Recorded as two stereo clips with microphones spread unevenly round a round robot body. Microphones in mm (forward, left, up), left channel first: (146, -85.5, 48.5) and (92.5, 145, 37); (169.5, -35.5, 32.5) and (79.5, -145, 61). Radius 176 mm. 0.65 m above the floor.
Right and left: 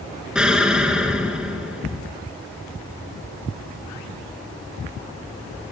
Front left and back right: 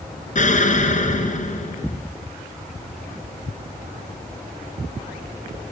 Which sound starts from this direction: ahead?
An explosion, at 0.3 s.